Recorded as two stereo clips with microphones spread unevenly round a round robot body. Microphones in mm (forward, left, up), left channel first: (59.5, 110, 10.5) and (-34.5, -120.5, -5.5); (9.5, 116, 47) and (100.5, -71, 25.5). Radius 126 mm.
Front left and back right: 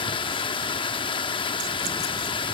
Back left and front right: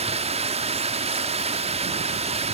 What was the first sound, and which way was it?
Running water, 5° right.